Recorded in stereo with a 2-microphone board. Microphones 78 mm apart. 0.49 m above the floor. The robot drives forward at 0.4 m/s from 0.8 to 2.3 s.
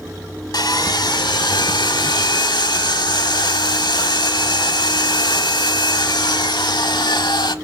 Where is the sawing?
60° left (ahead or behind), 1.0 m; by 7.5 s 80° left, 0.9 m.